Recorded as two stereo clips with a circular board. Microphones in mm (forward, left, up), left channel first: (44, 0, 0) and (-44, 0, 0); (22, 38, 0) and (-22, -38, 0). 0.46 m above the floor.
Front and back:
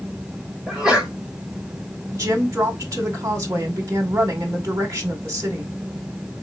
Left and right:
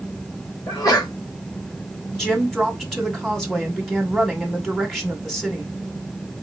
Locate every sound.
0.7 s a sneeze: 100° left, 1.6 m
2.1 s a woman speaking: 145° left, 1.7 m